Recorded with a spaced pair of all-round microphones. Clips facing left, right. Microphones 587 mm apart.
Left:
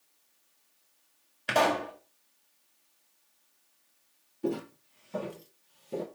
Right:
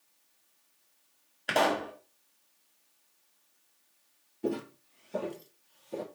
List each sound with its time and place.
1.5 s a pop: 30° left (ahead or behind), 2 m
4.4 s footsteps: 10° right (ahead or behind), 1.4 m; by 6.0 s 55° left (ahead or behind), 2 m